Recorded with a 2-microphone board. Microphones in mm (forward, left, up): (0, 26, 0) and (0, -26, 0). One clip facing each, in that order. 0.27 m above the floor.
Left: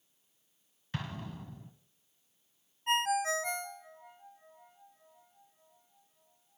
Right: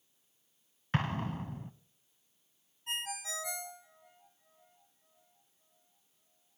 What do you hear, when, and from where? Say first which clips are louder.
0.9 s an explosion: right 7 dB; 45° right (ahead or behind), 0.6 m
2.9 s a ringtone: left 11 dB; 45° left (ahead or behind), 1.0 m